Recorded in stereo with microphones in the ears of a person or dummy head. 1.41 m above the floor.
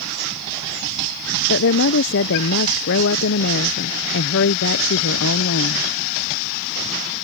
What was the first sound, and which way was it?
A woman speaking, 65° left (ahead or behind).